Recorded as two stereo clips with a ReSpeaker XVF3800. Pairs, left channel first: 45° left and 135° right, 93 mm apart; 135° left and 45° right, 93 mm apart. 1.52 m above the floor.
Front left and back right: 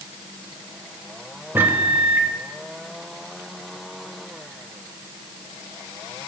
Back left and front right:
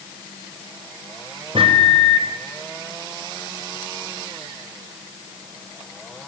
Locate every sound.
1.6 s a microwave: 65° right, 1.1 m